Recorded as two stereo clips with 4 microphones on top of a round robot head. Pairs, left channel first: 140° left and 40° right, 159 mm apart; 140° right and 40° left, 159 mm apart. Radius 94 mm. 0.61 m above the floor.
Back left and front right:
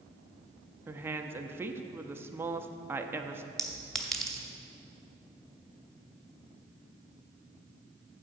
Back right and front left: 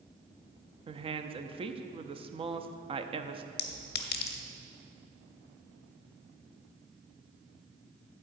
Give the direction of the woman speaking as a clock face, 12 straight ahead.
11 o'clock.